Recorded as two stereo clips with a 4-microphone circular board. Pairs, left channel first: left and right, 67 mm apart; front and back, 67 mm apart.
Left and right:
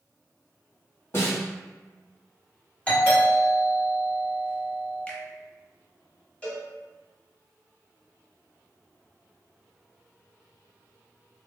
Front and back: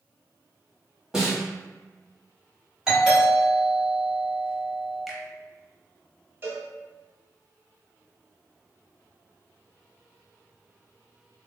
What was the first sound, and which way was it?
A snare drum, 100° left.